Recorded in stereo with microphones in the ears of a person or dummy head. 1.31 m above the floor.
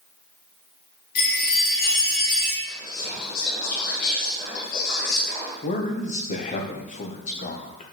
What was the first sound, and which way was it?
A chime, 60° left (ahead or behind).